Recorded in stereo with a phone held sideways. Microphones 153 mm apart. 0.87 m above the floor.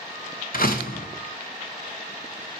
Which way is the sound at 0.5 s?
70° left (ahead or behind).